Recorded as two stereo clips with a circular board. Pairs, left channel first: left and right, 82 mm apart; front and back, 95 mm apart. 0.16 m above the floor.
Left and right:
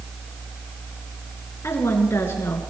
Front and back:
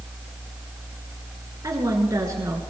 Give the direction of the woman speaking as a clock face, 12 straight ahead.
7 o'clock.